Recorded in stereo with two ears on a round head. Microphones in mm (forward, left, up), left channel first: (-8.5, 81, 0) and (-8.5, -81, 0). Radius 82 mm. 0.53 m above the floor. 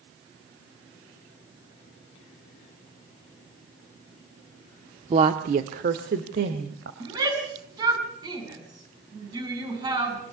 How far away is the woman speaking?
About 0.8 m.